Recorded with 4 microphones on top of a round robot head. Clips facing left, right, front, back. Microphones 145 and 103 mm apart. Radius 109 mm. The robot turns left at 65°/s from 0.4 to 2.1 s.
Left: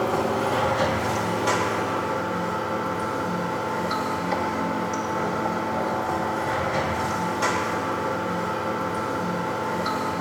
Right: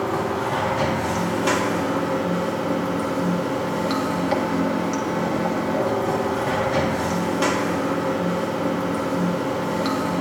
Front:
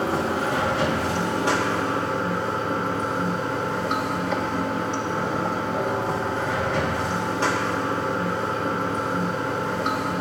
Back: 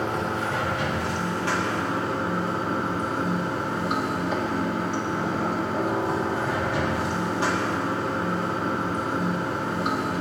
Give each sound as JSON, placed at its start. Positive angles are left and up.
{"t": 0.0, "sound": "running water", "azimuth_deg": 15, "distance_m": 1.9}